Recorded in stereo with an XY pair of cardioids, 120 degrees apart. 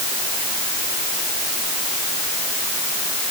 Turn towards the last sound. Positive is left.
No sound to turn to.